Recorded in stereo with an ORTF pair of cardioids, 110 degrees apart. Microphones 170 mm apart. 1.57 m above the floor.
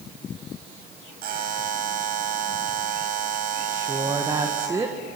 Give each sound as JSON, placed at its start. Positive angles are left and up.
{"t": 1.2, "sound": "a buzzer", "azimuth_deg": -60, "distance_m": 6.0}
{"t": 3.7, "sound": "a woman speaking", "azimuth_deg": -20, "distance_m": 1.9}